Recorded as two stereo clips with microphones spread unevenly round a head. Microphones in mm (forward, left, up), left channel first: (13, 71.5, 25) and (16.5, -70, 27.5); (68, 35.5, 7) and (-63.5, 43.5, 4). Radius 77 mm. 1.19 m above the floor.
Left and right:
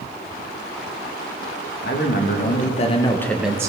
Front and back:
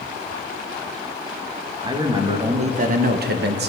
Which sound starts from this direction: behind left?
A man speaking, at 1.8 s.